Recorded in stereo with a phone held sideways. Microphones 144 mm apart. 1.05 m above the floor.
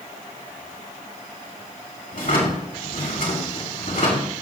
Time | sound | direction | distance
2.1 | a drawer | 80° left | 3 m